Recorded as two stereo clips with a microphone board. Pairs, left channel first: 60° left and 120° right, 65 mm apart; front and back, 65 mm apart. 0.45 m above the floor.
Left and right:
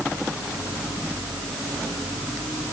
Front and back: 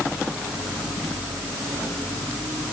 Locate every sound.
Only background noise.